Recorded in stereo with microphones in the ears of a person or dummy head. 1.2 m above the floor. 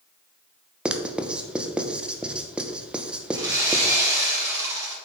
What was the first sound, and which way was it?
Writing, 5° right (ahead or behind).